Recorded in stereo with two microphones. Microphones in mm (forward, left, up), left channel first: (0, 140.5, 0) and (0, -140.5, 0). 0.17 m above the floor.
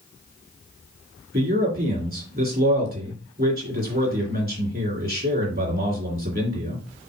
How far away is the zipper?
No zipper in this recording.